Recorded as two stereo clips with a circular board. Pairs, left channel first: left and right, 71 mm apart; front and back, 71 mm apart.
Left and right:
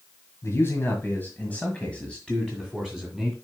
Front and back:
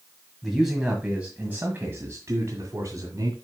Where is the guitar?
No guitar in this recording.